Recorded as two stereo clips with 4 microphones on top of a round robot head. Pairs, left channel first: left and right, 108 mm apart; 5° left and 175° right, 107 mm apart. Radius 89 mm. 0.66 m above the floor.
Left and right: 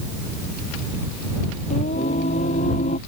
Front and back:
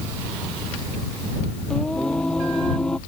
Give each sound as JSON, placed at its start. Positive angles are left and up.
{"t": 1.7, "sound": "singing", "azimuth_deg": 85}